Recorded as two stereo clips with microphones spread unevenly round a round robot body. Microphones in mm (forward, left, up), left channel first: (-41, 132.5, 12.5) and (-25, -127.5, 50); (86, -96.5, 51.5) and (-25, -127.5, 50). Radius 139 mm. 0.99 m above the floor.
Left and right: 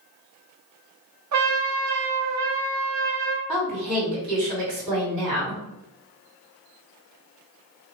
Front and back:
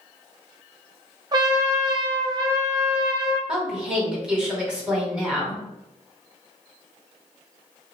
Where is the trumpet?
110° right, 0.9 m.